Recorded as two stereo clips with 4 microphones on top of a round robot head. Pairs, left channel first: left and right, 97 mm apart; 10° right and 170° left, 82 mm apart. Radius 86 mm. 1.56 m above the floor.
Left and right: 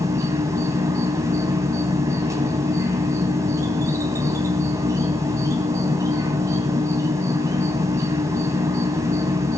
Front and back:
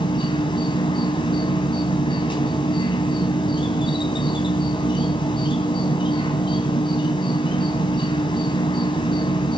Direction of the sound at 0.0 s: 30° right.